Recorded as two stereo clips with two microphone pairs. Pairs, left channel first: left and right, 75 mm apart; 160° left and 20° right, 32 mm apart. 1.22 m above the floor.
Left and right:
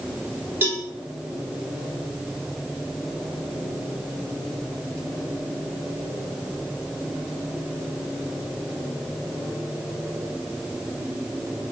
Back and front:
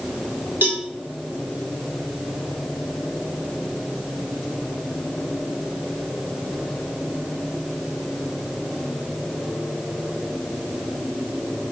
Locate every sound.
0.6 s a cowbell: 30° right, 1.1 m